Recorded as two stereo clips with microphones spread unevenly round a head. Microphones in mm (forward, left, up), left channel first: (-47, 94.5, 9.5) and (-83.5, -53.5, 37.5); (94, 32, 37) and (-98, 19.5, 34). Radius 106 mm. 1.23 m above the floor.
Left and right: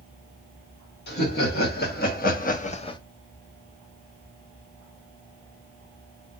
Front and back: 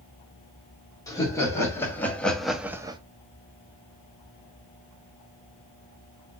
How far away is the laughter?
About 1.9 m.